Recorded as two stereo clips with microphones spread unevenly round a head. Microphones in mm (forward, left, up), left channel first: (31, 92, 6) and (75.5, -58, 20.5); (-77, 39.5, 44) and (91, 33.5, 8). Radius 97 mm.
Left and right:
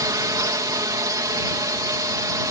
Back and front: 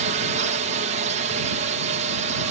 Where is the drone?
10° right.